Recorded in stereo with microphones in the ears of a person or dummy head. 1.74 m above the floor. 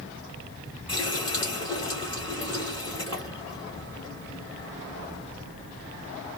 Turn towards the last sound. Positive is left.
turn(degrees=25)  # may be behind; listen again after turning